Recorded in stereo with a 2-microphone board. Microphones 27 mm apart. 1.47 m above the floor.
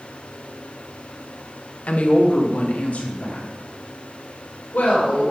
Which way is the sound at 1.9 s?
55° left (ahead or behind).